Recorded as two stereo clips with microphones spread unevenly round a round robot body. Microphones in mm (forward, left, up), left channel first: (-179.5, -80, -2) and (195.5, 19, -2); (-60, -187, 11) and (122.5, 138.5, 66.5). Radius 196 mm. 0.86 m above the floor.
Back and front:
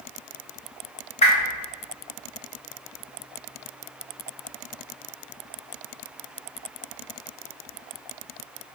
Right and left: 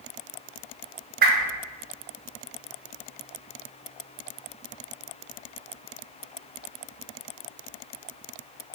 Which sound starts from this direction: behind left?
A whoosh, at 1.2 s.